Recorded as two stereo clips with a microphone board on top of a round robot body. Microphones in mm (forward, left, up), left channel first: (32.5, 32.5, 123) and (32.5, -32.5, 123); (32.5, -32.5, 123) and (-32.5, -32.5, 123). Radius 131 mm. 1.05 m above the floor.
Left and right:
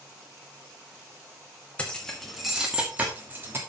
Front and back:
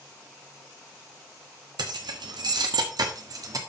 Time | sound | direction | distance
1.8 | keys jangling | 165° left | 1.2 m